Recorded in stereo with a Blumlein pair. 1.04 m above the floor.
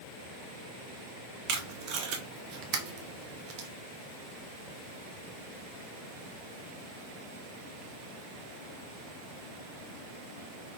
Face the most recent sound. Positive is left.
turn(degrees=-40)